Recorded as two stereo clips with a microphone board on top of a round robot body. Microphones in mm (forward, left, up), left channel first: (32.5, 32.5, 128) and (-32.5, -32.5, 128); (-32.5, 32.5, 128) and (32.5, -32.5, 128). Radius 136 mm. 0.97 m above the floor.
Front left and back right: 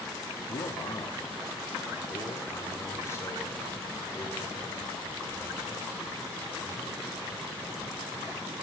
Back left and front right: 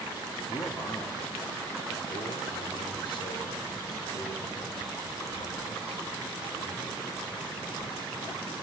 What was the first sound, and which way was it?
A man speaking, 75° left.